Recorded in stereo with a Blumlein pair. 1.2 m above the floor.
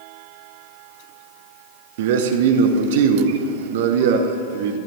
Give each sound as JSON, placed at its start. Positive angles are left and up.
{"t": 2.0, "sound": "a man speaking", "azimuth_deg": -55, "distance_m": 1.0}